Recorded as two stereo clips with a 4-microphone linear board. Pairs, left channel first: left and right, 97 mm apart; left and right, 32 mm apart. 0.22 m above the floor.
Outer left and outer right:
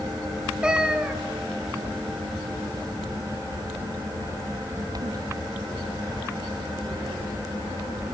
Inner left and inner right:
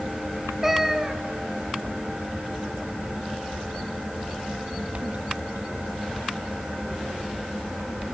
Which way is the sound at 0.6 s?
10° right (ahead or behind).